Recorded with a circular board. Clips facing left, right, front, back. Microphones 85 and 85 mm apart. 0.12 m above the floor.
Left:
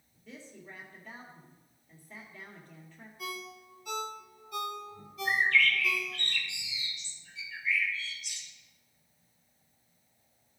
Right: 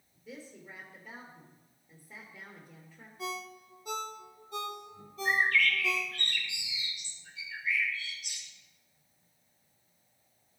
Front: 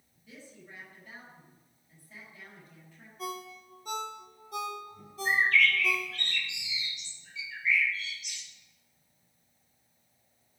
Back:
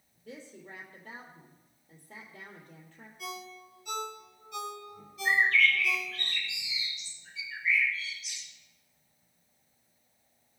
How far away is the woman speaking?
About 2.5 m.